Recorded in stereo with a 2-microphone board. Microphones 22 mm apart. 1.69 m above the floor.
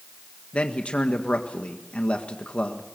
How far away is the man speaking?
About 1.5 m.